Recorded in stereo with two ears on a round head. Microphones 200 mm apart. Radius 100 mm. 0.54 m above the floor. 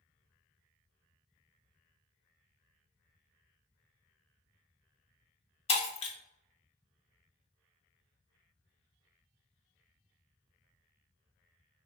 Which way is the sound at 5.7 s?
30° left (ahead or behind).